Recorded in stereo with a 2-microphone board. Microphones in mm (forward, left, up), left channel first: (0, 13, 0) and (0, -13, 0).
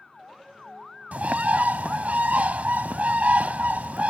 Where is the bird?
70° right (ahead or behind).